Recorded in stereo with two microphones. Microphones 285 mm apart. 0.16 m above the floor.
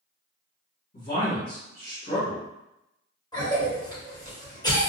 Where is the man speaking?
35° left (ahead or behind), 1.9 m.